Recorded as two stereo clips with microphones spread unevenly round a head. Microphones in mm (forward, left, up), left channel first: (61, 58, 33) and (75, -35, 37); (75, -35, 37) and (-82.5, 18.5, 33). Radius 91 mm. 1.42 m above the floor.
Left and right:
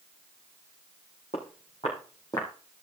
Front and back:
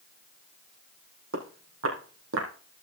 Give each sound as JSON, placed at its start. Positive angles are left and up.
{"t": 1.3, "sound": "footsteps", "azimuth_deg": 155, "distance_m": 4.0}